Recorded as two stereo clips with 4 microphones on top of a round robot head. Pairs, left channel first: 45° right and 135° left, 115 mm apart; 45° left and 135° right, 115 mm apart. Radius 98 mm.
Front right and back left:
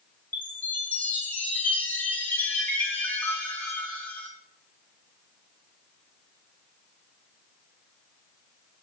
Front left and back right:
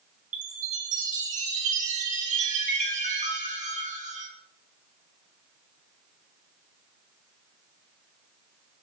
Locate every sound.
0.3 s a chime: 120° right, 2.5 m